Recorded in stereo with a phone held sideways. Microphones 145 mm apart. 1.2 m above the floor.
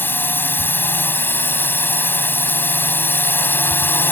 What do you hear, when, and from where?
0.0 s a drone: 15° left (ahead or behind)